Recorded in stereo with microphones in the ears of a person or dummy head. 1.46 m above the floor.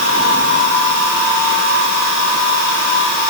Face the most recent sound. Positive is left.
No sound to turn to.